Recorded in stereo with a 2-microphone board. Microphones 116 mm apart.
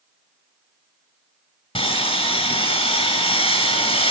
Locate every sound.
1.8 s sawing: 50° left (ahead or behind), 3.5 m